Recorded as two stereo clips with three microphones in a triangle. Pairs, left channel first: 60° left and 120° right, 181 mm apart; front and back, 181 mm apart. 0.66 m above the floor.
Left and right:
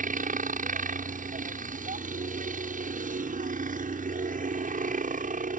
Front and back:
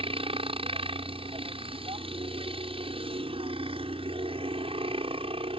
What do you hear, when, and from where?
0.0 s a helicopter: 135° right